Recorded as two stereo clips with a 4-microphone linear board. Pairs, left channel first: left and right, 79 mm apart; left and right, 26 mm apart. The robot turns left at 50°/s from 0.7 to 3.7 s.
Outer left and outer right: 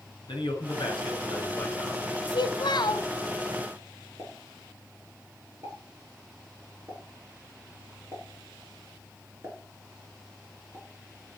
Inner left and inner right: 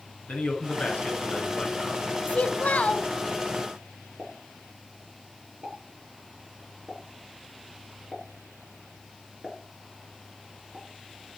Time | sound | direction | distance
0.3 | a man speaking | 95° left | 7.5 m
2.3 | a child speaking | 95° left | 1.8 m
4.2 | a pop | 40° right (ahead or behind) | 7.5 m